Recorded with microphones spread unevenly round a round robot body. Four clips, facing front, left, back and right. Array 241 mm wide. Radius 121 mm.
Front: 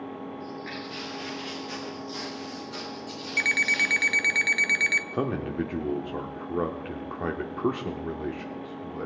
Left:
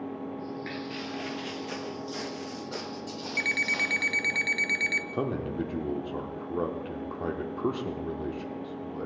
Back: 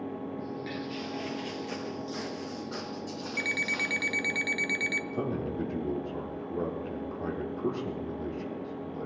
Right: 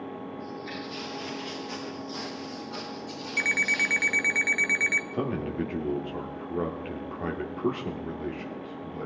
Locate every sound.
0.4 s footsteps: 145° left, 2.5 m; by 4.4 s 75° left, 1.7 m
3.4 s an alarm clock: 70° right, 0.6 m
5.1 s a man speaking: straight ahead, 0.9 m